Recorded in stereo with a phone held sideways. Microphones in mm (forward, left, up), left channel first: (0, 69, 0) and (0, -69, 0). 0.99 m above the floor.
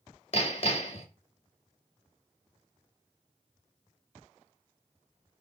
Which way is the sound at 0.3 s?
50° left (ahead or behind).